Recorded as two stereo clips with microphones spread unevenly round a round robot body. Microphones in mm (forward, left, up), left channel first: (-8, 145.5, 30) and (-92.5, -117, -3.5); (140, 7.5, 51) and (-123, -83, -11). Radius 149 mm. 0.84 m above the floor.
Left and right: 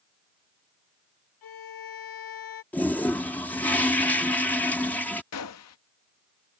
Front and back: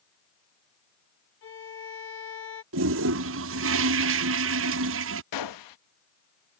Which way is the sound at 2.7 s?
160° left.